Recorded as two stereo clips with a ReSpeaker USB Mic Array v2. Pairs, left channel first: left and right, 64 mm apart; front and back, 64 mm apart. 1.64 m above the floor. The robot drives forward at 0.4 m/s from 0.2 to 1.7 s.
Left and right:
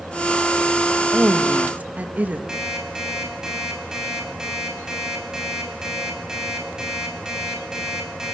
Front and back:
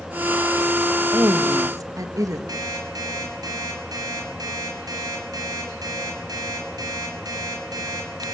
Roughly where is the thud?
No thud in this recording.